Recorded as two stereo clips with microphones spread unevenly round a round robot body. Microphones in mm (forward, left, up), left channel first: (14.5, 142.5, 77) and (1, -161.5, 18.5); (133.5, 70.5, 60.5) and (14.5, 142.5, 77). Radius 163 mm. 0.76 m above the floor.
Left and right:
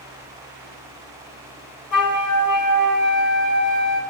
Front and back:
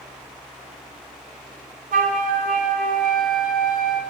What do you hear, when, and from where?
1.9 s a flute: 145° left, 2.5 m